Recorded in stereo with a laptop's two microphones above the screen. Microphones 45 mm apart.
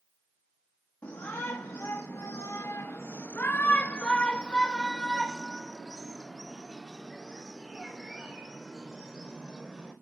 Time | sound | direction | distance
1.0 | a shout | 65° left (ahead or behind) | 1.5 m